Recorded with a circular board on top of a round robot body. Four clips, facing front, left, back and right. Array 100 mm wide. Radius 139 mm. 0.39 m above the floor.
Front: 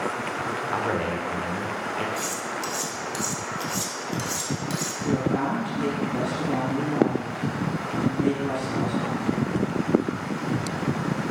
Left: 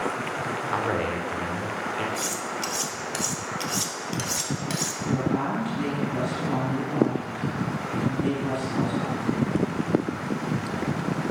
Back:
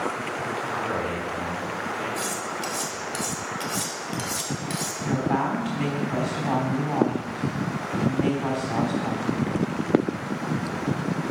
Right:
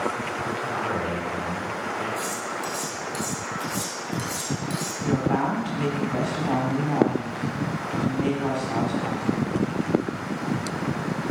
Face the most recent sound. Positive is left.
turn(degrees=-140)